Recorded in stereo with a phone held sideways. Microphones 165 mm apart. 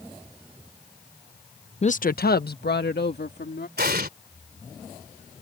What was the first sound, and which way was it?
A woman speaking, 40° left (ahead or behind).